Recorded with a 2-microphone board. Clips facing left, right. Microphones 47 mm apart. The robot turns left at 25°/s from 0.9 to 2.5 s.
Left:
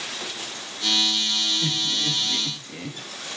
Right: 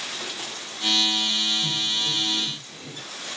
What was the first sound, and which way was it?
Laughter, 65° left (ahead or behind).